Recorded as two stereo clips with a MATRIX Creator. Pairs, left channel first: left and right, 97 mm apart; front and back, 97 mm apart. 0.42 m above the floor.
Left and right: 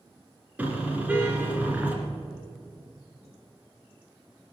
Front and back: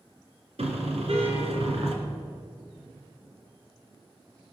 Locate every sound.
0.6 s a car horn: 165° right, 2.5 m